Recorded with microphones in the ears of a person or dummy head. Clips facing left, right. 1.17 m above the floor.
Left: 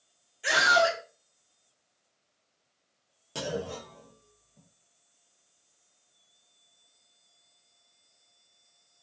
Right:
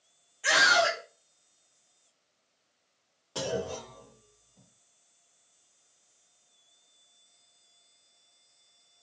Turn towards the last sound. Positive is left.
turn(degrees=35)  # may be behind; listen again after turning